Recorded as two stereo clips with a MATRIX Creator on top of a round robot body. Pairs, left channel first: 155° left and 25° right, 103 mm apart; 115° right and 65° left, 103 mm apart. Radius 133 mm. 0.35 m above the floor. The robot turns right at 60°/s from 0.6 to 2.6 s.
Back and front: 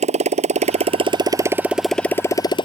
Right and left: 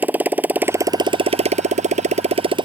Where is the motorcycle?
10° right; by 2.7 s 110° left.